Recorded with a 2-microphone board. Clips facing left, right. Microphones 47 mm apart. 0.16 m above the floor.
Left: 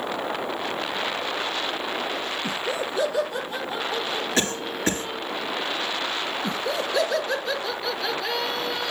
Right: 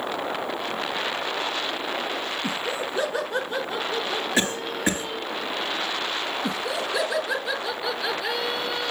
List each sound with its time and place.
2.4 s laughter: 20° right (ahead or behind), 1.2 m; by 5.3 s 55° right (ahead or behind), 3 m
4.4 s a cough: 15° right (ahead or behind), 2.5 m
6.4 s laughter: 10° right (ahead or behind), 3.5 m